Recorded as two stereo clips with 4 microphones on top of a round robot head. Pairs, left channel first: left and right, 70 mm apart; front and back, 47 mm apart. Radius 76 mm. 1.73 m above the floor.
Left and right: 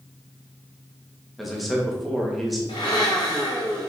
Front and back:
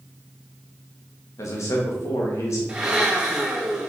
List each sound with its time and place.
1.4 s a man speaking: straight ahead, 2.5 m
2.7 s a blender: 105° left, 2.5 m